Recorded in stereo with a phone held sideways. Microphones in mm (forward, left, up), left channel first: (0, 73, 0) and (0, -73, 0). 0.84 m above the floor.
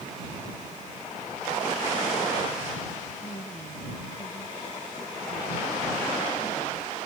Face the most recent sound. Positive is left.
turn(degrees=60)  # may be behind; listen again after turning